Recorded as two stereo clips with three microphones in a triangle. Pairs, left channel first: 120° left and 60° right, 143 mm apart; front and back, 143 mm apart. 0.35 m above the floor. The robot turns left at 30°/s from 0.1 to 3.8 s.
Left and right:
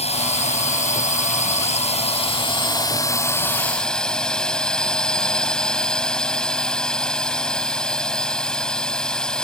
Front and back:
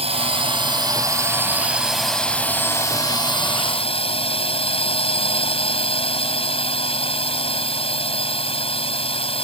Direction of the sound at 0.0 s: 150° left.